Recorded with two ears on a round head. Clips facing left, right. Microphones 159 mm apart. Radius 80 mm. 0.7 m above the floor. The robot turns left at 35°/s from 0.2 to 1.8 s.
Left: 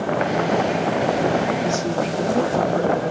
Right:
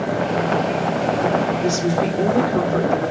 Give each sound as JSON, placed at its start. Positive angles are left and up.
{"t": 1.6, "sound": "a woman speaking", "side_deg": -70, "distance_m": 1.8}